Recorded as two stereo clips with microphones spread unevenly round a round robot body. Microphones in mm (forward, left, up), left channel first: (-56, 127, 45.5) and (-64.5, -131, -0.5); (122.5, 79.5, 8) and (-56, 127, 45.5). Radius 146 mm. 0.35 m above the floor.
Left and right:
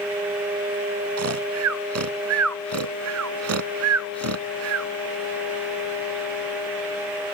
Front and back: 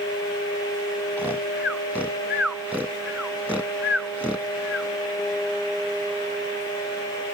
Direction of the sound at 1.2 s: 105° right.